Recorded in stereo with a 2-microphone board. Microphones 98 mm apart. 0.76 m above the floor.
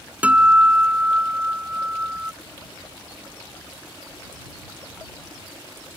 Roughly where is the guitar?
Centre.